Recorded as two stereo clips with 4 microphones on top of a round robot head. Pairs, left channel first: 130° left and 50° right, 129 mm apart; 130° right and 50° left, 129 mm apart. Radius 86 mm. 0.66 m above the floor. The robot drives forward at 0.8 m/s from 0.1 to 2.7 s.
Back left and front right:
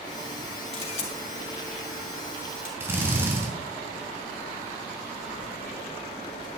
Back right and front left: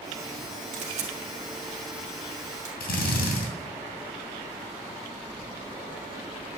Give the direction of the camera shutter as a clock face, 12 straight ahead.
9 o'clock.